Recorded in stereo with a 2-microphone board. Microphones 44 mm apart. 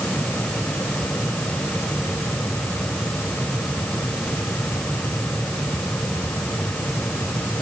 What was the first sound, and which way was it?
Only background noise.